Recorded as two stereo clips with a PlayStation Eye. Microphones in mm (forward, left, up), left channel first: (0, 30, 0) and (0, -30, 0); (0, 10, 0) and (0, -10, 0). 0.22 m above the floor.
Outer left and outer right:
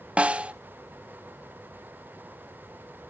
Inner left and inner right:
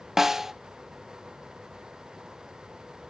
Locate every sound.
0.2 s a snare drum: 20° right (ahead or behind), 0.6 m